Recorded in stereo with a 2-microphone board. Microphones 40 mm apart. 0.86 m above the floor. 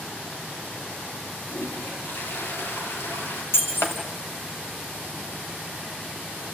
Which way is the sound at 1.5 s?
70° left (ahead or behind).